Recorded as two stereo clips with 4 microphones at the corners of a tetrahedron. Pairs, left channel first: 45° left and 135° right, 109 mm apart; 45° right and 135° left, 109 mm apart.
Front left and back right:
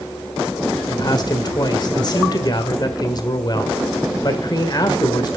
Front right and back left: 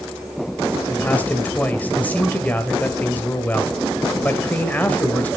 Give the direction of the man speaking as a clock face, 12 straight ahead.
11 o'clock.